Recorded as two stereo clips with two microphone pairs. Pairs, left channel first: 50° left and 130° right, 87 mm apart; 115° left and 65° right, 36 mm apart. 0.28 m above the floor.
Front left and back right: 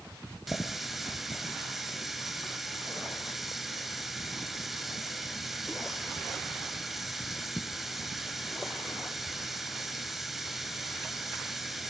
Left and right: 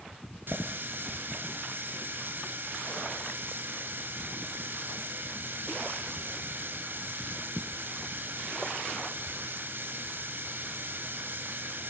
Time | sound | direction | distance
0.5 | a running tap | 40° right | 2.5 m